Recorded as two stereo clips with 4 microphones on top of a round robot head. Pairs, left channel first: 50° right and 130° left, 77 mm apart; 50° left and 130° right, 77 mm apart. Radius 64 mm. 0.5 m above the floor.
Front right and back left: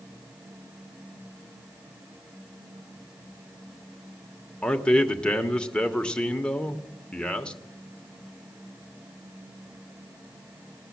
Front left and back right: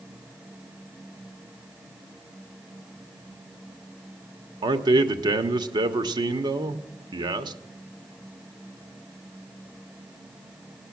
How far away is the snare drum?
I don't hear a snare drum.